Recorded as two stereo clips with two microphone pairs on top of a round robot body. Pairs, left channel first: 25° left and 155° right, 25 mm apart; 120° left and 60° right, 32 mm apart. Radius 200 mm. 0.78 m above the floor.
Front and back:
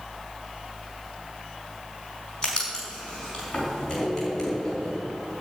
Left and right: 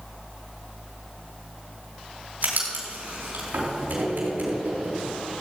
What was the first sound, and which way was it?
Writing, 35° right.